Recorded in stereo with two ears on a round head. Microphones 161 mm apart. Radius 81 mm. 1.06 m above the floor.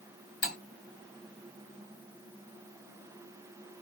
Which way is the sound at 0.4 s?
80° left.